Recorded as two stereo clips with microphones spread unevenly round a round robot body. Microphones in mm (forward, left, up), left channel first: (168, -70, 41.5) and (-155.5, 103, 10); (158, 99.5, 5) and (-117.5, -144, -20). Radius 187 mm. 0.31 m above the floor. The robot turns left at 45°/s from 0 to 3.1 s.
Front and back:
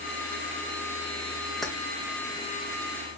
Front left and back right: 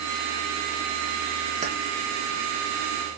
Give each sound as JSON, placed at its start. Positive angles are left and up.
{"t": 1.6, "sound": "keys jangling", "azimuth_deg": -130, "distance_m": 0.6}